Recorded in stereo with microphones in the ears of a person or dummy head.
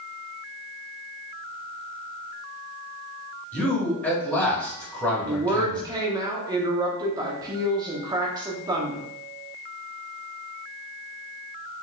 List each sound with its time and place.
3.5 s a man speaking: 5° left (ahead or behind), 2 m
5.3 s a woman speaking: 15° right (ahead or behind), 1.0 m